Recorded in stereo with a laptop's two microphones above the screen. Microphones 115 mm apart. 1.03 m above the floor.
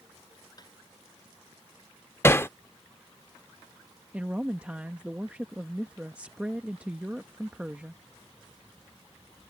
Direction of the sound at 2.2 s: 20° left (ahead or behind).